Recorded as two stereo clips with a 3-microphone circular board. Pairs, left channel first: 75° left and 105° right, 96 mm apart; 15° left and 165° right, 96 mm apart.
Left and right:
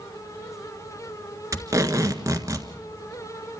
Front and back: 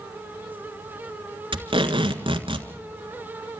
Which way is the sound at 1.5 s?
155° right.